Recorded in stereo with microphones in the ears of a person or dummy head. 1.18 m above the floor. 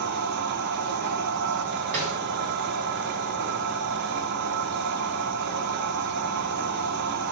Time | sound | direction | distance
0.0 | a machine running | 55° right (ahead or behind) | 0.8 m
1.9 | a snare drum | 40° right (ahead or behind) | 3.5 m